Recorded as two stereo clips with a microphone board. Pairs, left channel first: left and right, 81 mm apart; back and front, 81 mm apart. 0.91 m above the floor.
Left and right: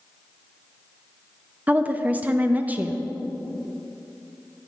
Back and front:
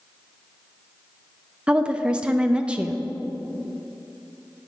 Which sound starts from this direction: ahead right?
A woman speaking, at 1.7 s.